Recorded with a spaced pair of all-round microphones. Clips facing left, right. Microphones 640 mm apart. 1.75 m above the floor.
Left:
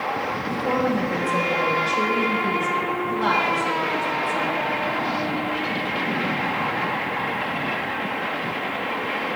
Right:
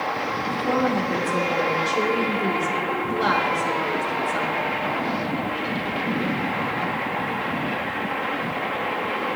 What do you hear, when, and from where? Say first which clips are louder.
0.5 s a woman speaking: even; 85° right, 2.5 m